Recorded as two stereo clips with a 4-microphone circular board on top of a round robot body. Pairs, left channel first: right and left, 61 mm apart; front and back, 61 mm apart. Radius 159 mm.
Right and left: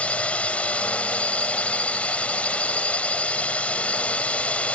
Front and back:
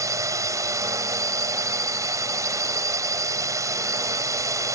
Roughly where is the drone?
Behind right.